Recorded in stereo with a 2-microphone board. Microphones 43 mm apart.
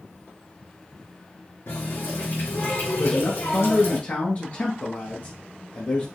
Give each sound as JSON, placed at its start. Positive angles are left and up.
{"t": 1.7, "sound": "a running tap", "side_deg": 75, "distance_m": 3.0}
{"t": 3.0, "sound": "a man speaking", "side_deg": 40, "distance_m": 1.4}